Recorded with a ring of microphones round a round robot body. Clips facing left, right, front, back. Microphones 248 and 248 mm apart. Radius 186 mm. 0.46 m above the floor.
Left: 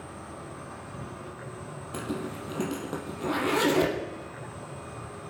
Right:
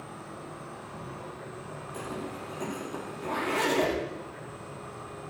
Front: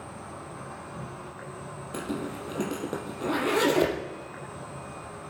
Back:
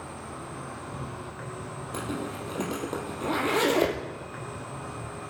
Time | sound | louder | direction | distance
0.0 | an insect | left 1 dB, back 2 dB | 135° left | 5 m
1.9 | a zipper | left 4 dB, front 1 dB | 80° left | 4 m